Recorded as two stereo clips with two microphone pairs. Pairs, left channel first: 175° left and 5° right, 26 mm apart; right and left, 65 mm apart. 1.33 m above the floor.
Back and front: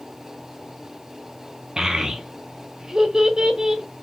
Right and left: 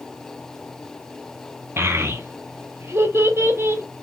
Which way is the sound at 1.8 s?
50° left.